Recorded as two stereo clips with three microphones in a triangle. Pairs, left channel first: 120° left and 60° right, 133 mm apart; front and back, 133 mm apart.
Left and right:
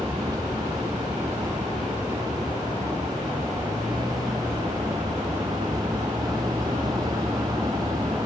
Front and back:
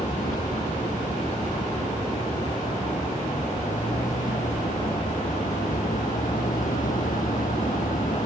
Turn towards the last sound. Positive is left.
turn(degrees=0)